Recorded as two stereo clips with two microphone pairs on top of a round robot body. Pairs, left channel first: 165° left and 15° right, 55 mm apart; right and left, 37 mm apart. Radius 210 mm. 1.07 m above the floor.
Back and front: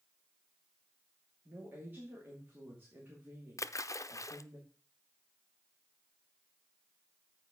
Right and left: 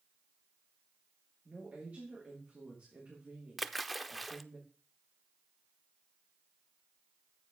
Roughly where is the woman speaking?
Ahead left.